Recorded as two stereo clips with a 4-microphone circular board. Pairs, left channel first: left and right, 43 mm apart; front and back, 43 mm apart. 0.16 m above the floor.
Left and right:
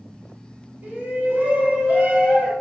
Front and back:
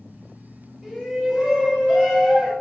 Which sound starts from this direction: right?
A shout, at 0.8 s.